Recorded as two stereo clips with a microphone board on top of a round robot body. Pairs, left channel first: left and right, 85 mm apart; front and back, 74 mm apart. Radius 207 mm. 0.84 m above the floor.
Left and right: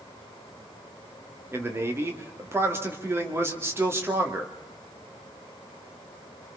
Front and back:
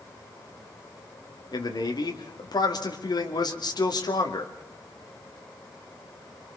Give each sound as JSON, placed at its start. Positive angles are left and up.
{"t": 1.5, "sound": "a man speaking", "azimuth_deg": -25, "distance_m": 3.0}